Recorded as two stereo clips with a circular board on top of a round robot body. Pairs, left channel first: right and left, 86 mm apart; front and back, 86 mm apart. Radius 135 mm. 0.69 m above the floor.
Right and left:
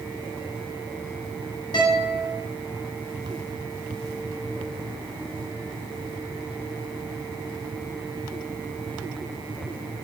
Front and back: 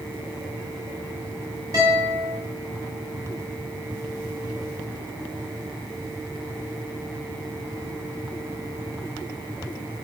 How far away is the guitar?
About 2.5 m.